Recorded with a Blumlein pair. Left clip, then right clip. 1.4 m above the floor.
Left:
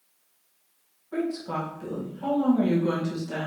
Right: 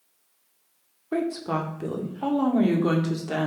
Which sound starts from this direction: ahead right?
A woman speaking, at 1.1 s.